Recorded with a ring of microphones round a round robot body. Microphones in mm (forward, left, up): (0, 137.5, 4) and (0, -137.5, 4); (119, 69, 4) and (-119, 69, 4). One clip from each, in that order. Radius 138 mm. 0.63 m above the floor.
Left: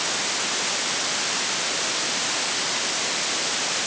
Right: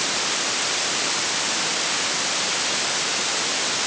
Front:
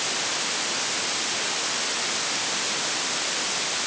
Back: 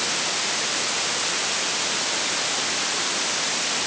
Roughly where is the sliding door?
No sliding door in this recording.